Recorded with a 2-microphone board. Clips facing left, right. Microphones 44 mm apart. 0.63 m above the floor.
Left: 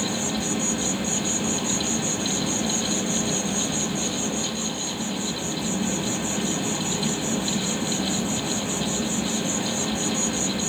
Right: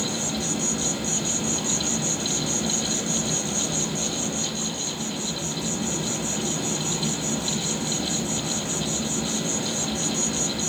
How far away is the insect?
About 1.1 m.